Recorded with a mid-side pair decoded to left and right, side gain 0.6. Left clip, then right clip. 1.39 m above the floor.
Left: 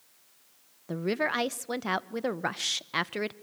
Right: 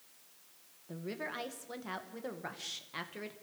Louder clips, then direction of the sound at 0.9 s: Left 12 dB; 55° left.